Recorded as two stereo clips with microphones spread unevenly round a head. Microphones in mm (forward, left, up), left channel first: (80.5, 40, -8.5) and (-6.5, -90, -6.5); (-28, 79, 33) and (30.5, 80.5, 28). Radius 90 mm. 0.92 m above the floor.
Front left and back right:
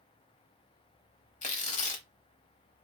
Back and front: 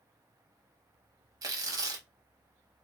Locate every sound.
1.4 s tearing paper: 15° left, 0.8 m